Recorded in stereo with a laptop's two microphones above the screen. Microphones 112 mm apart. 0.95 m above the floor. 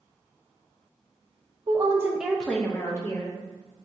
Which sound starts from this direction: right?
A woman speaking, at 1.7 s.